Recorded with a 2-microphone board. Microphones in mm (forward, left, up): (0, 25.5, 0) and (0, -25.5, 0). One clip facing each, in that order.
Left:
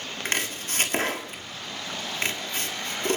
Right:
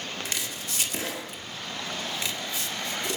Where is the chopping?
45° left (ahead or behind), 1.9 m.